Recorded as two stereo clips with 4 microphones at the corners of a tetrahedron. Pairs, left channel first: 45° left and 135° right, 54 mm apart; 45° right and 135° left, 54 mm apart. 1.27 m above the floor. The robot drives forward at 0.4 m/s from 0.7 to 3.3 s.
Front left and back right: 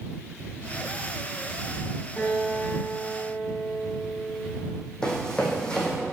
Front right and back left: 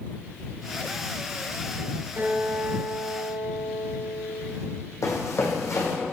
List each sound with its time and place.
2.2 s a guitar: 105° left, 4 m; by 4.5 s 115° left, 4 m
5.0 s running footsteps: 30° right, 3.5 m